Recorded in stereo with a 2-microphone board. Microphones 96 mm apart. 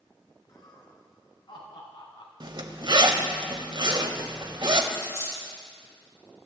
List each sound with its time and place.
0.5 s laughter: 45° left (ahead or behind), 5.5 m; by 2.3 s 60° left (ahead or behind), 4.5 m
2.4 s a zipper: 55° right (ahead or behind), 1.4 m
4.9 s a dropped coin: 35° right (ahead or behind), 6 m